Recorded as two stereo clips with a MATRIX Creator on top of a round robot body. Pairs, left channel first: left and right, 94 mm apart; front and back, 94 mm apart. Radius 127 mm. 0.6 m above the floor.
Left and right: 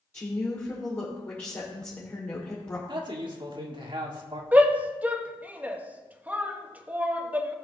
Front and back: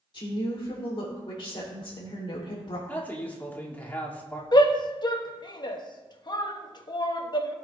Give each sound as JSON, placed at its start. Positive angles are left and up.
{"t": 0.1, "sound": "a woman speaking", "azimuth_deg": 30, "distance_m": 2.5}
{"t": 2.9, "sound": "a man speaking", "azimuth_deg": -70, "distance_m": 2.0}
{"t": 4.5, "sound": "a shout", "azimuth_deg": -20, "distance_m": 1.4}